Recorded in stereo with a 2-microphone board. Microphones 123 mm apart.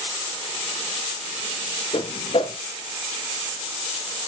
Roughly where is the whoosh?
Left.